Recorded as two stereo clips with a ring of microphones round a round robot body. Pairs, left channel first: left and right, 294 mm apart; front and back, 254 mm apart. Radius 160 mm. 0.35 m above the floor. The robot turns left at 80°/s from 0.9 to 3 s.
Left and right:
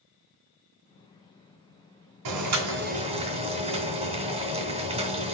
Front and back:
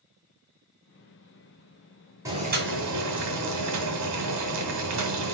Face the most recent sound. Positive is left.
turn(degrees=-160)